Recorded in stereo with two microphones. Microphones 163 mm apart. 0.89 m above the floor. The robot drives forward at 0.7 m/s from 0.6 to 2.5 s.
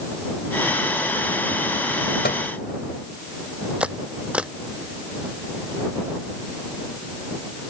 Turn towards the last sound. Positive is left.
turn(degrees=-5)  # may be behind; listen again after turning